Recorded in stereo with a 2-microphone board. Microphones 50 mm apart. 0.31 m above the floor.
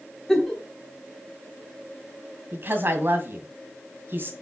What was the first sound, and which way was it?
A giggle, 10° left (ahead or behind).